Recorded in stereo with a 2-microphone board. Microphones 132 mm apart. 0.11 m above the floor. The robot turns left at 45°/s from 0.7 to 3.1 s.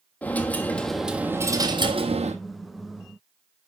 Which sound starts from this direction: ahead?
A dropped coin, at 0.2 s.